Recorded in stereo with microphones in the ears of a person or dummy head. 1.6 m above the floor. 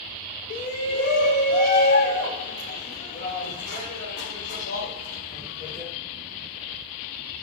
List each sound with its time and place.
0.5 s a shout: 40° left (ahead or behind), 0.7 m; by 5.9 s 65° left (ahead or behind), 4 m